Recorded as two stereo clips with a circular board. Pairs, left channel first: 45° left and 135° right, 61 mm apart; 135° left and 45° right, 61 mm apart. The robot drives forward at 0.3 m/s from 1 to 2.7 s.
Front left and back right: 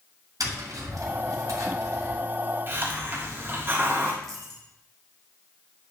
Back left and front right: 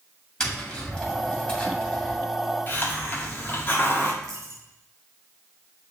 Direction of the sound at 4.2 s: 125° left.